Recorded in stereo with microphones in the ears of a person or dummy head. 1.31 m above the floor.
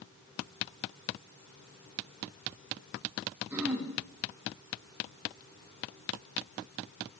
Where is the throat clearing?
5° right (ahead or behind), 3 m.